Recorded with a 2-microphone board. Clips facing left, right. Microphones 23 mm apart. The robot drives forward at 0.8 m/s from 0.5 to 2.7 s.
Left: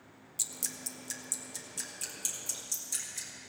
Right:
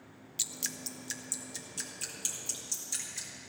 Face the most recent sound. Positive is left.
turn(degrees=-5)  # may be behind; listen again after turning